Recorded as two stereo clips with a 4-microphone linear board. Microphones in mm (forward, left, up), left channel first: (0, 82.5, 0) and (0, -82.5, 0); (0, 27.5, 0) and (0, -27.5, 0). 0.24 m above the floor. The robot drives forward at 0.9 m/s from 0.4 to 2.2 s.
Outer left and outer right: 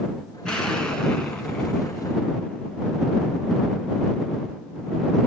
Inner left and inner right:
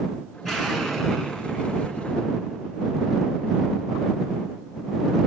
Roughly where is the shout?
I don't hear a shout.